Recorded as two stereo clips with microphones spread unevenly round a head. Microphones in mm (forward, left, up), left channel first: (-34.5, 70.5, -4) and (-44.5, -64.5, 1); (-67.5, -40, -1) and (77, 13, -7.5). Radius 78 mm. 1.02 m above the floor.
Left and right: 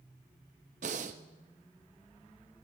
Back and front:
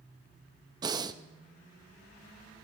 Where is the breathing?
45° right, 0.7 m.